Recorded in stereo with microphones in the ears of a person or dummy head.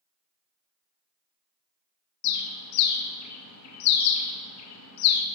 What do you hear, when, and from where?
2.2 s a bird: 80° left, 0.5 m